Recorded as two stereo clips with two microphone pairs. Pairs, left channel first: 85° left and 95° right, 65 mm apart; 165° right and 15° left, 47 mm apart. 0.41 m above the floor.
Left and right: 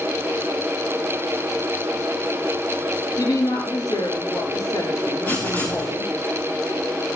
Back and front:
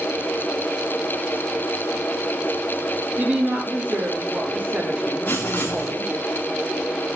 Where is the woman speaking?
70° left, 6.5 m.